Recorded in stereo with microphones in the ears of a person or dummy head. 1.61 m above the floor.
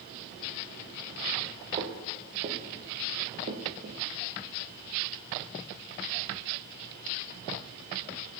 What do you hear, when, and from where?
1.8 s footsteps: 40° right (ahead or behind), 3 m